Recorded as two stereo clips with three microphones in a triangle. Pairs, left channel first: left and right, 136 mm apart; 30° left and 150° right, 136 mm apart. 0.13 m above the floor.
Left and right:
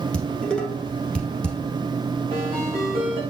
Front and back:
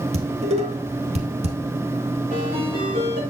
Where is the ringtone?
140° right, 5 m.